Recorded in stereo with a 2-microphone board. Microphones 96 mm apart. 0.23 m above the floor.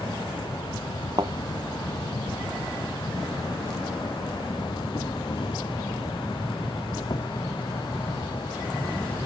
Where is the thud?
50° right (ahead or behind).